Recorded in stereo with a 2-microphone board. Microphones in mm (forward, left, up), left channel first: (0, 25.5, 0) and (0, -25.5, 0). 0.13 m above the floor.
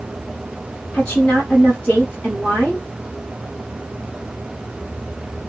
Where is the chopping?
No chopping in this recording.